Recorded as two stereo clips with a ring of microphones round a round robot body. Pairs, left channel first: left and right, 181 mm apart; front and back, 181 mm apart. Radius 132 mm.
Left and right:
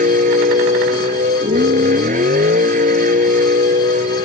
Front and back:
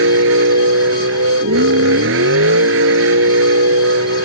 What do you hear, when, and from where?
0.0 s a vehicle: 150° right